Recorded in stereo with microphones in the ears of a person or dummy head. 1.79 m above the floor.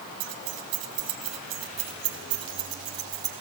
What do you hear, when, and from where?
0.2 s keys jangling: 50° right (ahead or behind), 1.8 m; by 3.3 s 20° right (ahead or behind), 3 m